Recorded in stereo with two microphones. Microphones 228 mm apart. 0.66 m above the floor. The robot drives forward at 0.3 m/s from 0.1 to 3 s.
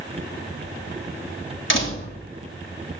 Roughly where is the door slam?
Left.